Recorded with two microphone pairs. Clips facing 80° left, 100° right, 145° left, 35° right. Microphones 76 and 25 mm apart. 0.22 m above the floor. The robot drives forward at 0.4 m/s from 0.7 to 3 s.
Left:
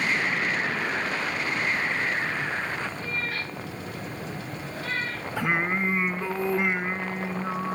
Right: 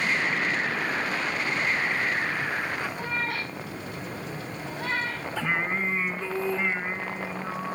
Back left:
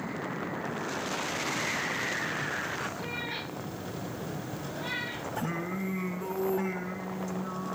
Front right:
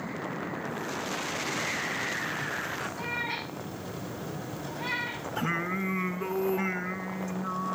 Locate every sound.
3.0 s a cat meowing: 80° right, 6.5 m
5.4 s singing: 10° left, 1.8 m